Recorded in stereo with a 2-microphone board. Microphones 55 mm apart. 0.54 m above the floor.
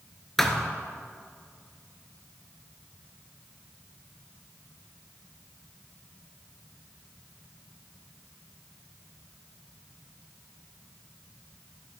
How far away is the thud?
About 1.2 m.